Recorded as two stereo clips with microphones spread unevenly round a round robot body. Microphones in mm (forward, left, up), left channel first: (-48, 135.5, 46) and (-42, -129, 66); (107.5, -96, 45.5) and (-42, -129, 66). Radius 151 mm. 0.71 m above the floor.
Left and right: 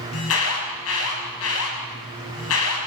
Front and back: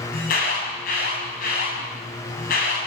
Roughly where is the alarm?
Ahead left.